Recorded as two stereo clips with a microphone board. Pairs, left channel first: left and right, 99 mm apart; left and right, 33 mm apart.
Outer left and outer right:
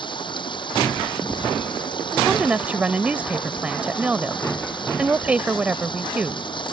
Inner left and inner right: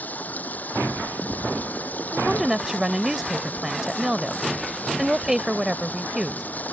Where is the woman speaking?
15° right (ahead or behind).